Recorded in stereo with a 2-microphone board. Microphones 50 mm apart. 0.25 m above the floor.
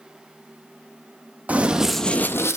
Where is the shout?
No shout in this recording.